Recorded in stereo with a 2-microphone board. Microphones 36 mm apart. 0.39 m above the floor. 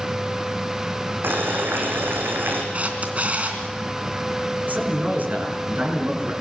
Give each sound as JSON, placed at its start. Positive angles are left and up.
{"t": 1.2, "sound": "boiling", "side_deg": -75, "distance_m": 4.5}
{"t": 2.7, "sound": "a camera shutter", "side_deg": -40, "distance_m": 3.0}
{"t": 4.7, "sound": "a man speaking", "side_deg": -55, "distance_m": 5.5}